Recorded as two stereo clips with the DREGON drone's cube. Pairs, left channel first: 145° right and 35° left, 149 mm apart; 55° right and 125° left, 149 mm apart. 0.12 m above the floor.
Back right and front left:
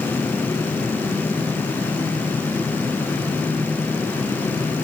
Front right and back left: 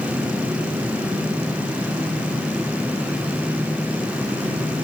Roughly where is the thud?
No thud in this recording.